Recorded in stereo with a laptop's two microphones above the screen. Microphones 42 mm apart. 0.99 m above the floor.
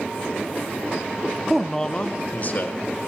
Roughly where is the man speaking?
Centre.